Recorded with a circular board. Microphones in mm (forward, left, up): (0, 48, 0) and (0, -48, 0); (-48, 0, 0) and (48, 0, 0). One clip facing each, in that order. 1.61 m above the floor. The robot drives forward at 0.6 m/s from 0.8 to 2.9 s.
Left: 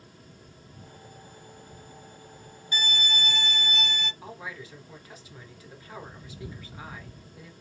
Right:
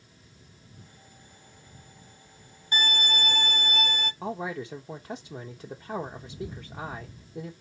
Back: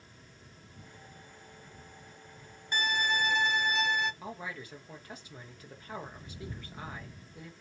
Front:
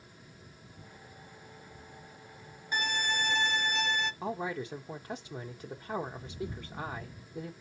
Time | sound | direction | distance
2.7 | a violin | 85° right | 0.8 m
4.2 | a man speaking | 65° right | 0.9 m